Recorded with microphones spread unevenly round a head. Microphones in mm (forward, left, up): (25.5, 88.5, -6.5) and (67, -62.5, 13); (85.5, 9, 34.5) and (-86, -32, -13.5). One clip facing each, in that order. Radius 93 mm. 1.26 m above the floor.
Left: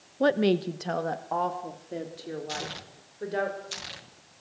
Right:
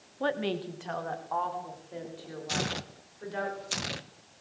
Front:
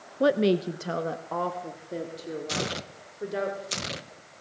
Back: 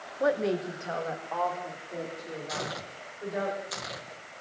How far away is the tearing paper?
About 1.2 m.